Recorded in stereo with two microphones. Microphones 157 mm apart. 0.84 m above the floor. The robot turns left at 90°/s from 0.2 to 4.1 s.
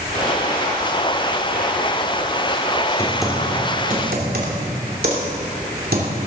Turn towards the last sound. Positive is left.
turn(degrees=-70)  # may be behind; listen again after turning